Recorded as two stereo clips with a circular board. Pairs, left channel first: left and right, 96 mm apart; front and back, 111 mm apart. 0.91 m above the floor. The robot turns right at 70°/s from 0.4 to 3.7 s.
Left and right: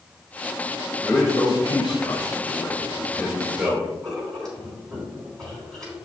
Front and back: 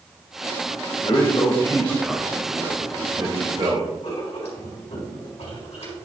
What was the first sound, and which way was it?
A man speaking, 10° left.